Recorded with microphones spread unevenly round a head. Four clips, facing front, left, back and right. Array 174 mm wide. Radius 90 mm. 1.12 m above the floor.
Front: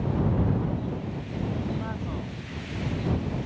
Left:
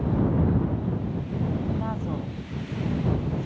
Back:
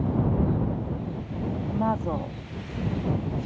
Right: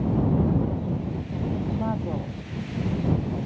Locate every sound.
1.7 s a woman speaking: 155° right; by 3.5 s 165° left